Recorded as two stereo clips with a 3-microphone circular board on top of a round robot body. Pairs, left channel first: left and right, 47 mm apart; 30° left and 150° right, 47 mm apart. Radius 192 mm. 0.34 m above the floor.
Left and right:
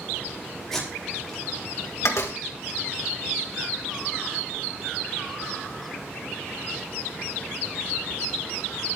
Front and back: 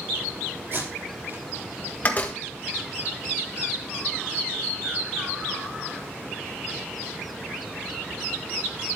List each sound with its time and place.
0.7 s tape being pulled: 170° left, 5 m
2.0 s a door slam: 80° left, 2 m